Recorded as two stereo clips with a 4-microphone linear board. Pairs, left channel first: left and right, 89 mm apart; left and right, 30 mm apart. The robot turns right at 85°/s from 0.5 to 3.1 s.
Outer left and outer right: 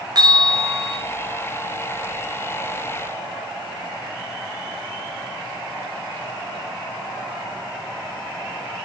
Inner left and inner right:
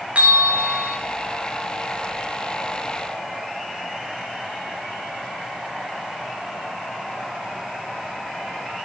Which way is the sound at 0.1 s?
50° right.